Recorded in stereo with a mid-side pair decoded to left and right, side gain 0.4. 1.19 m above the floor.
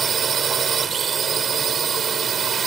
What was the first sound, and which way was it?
A drone, 55° right.